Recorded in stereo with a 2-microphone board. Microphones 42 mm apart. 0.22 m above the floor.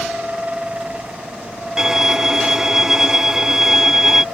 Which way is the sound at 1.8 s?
10° right (ahead or behind).